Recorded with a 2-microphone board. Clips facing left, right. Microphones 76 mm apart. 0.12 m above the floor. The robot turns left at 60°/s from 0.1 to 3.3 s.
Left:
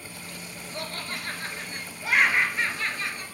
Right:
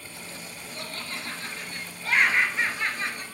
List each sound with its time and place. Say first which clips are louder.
0.7 s laughter: left 3 dB; 100° left, 1.7 m; by 3.2 s 50° right, 1.7 m